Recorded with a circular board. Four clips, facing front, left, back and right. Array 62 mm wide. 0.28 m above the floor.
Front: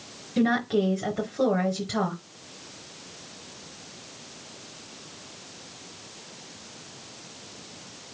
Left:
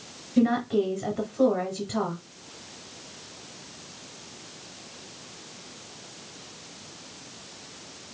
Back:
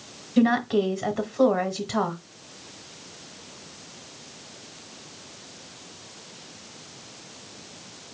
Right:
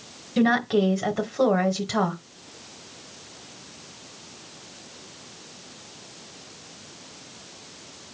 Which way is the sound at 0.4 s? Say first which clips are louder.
Right 2 dB, back 2 dB; 95° right.